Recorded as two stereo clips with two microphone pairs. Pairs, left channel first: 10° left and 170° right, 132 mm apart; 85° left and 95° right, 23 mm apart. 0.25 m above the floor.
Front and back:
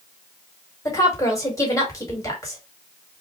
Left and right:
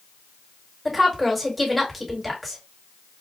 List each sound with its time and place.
0.8 s a woman speaking: 5° right, 1.5 m